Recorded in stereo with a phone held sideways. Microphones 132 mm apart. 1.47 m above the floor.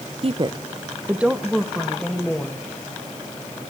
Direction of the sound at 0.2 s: 50° right (ahead or behind).